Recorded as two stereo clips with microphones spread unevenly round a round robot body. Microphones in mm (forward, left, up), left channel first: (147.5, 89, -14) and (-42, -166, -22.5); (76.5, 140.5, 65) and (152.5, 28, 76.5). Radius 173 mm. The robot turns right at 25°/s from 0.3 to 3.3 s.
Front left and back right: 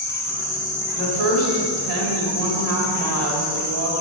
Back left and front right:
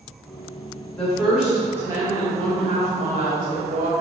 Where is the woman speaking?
155° right, 2 m; by 3.9 s 95° right, 2 m.